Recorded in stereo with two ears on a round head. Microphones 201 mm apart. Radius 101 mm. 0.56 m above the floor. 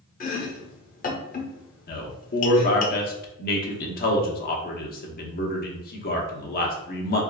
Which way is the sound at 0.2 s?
35° left (ahead or behind).